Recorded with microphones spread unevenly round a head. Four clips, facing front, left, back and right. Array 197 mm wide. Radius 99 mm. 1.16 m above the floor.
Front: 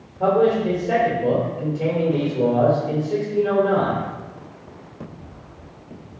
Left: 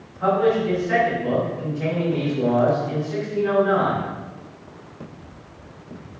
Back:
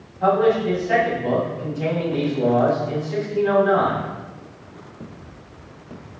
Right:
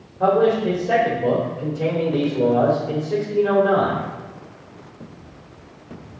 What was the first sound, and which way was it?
A man speaking, 60° right.